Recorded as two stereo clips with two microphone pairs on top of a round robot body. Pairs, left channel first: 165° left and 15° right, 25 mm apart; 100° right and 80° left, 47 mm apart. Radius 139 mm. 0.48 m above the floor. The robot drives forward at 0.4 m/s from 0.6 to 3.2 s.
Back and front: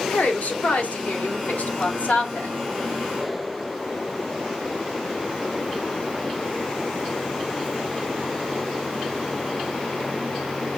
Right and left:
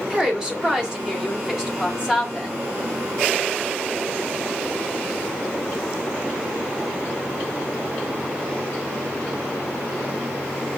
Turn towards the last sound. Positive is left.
turn(degrees=155)